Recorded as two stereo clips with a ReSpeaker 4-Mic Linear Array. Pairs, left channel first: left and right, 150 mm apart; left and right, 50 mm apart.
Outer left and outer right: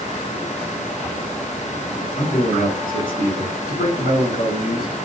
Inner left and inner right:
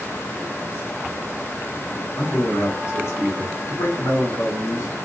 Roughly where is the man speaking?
Left.